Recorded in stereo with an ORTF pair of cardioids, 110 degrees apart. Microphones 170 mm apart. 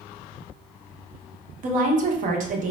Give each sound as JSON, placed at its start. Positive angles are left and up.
{"t": 1.6, "sound": "a woman speaking", "azimuth_deg": -55, "distance_m": 0.7}